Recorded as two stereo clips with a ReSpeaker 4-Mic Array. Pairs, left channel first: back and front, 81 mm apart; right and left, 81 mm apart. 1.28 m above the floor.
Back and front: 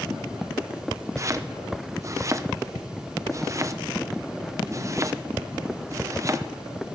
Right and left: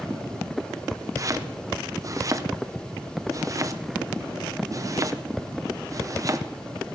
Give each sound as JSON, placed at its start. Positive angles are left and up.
{"t": 1.2, "sound": "chopping", "azimuth_deg": 50, "distance_m": 0.8}